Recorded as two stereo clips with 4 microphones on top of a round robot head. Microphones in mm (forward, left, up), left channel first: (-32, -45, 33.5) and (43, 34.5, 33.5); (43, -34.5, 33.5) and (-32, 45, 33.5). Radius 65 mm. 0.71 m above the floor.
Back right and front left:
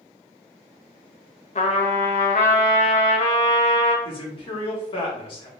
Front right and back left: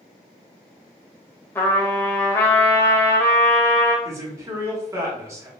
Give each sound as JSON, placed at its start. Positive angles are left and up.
{"t": 1.6, "sound": "a trumpet", "azimuth_deg": -115, "distance_m": 0.6}
{"t": 4.0, "sound": "a man speaking", "azimuth_deg": -165, "distance_m": 1.2}